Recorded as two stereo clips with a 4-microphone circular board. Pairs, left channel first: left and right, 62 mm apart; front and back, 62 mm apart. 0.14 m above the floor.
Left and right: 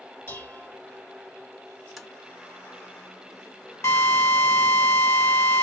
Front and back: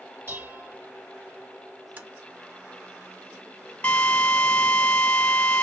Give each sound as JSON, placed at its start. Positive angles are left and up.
{"t": 0.3, "sound": "dishes clattering", "azimuth_deg": 135, "distance_m": 1.7}
{"t": 2.0, "sound": "tapping", "azimuth_deg": 180, "distance_m": 1.0}
{"t": 3.8, "sound": "a drill", "azimuth_deg": 65, "distance_m": 1.7}